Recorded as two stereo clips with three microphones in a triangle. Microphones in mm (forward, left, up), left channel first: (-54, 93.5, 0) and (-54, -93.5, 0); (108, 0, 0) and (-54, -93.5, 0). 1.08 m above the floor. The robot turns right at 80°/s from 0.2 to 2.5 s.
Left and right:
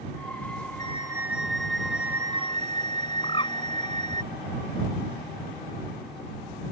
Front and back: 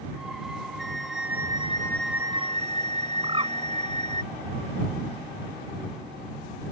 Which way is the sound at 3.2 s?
150° left.